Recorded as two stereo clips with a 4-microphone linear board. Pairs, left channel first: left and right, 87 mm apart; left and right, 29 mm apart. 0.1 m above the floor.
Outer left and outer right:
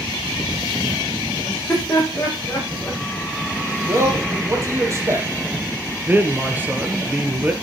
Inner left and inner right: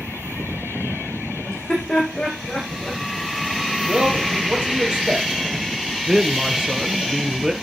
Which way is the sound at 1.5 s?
20° left (ahead or behind).